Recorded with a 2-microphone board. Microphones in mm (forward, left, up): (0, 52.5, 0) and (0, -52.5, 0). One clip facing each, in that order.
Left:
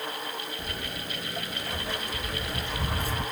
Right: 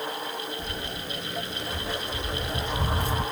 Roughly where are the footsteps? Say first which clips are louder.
Right 2 dB; left.